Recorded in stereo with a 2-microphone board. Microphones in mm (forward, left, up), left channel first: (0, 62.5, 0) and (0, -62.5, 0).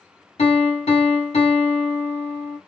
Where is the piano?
50° left (ahead or behind), 0.8 m.